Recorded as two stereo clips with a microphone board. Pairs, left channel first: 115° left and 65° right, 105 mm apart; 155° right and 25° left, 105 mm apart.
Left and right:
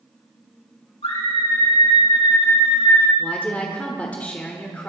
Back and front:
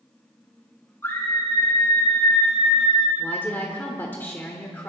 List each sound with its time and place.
1.0 s a scream: 135° left, 6.5 m; by 3.1 s 160° left, 5 m
3.2 s a woman speaking: 165° left, 1.4 m